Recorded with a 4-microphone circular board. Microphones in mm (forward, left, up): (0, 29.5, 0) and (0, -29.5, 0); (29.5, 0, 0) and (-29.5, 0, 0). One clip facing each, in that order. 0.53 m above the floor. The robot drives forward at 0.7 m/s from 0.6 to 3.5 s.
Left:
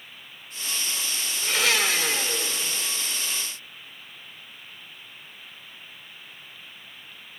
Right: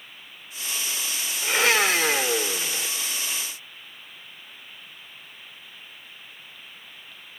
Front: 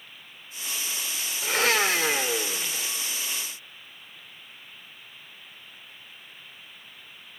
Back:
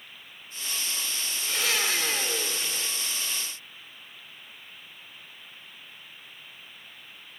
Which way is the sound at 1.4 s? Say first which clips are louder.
Right 3 dB, front 6 dB; 30° right.